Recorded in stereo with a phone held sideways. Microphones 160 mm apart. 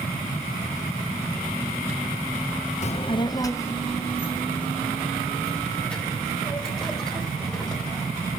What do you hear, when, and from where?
2.8 s a child speaking: 50° left (ahead or behind), 0.5 m; by 8.1 s 5° left (ahead or behind), 6 m